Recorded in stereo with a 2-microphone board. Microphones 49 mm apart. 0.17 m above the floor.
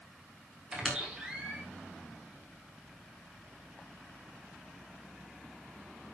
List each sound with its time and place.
0.7 s a squeak: 15° right (ahead or behind), 4 m